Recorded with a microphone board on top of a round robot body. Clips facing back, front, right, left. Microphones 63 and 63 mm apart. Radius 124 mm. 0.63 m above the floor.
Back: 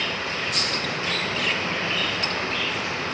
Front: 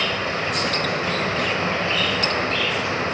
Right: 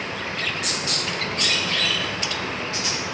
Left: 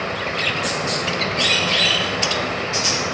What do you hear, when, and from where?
0.0 s running water: 55° left, 2.5 m